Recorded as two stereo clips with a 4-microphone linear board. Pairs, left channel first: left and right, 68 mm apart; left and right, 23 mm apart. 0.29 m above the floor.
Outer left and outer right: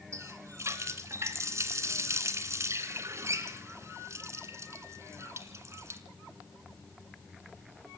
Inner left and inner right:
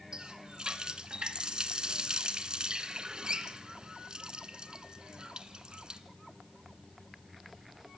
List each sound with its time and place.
0.1 s a running tap: 45° right (ahead or behind), 2 m